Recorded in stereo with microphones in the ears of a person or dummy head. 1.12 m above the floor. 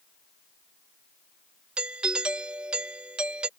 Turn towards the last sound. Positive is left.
turn(degrees=-5)  # may be behind; listen again after turning